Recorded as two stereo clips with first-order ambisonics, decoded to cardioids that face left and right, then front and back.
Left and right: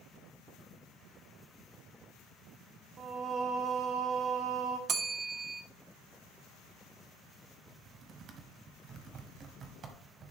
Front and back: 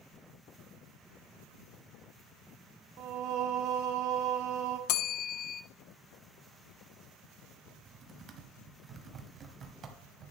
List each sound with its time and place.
3.0 s singing: 150° right, 1.2 m
4.9 s a bell: 30° right, 0.7 m
7.7 s typing on a keyboard: 135° right, 1.3 m